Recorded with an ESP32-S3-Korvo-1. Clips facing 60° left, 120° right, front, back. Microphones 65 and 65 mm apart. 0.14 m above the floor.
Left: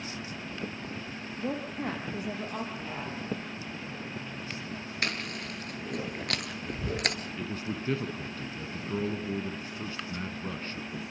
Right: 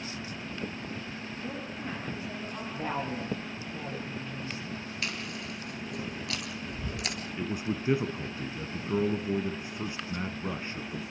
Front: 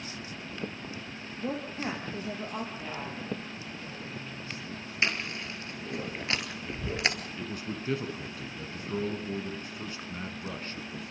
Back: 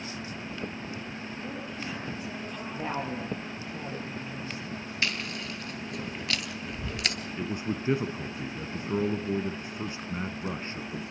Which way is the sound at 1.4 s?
45° left.